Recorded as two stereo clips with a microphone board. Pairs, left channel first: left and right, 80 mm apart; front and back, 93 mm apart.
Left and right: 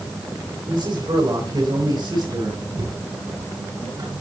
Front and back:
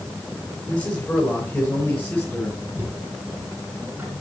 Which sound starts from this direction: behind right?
Knocking, at 2.8 s.